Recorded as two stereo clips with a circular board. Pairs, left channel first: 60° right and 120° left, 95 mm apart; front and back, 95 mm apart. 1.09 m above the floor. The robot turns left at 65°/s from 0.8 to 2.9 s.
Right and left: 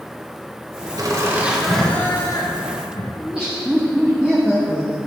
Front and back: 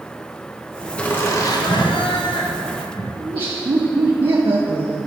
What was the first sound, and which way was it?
Laughter, 75° left.